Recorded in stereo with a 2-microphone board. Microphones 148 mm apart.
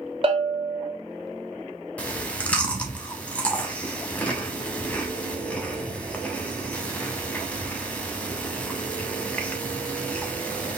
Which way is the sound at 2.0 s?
10° left (ahead or behind).